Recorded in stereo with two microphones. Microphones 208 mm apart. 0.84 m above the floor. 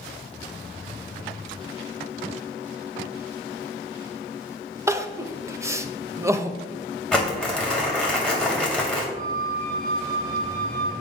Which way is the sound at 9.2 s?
35° right (ahead or behind).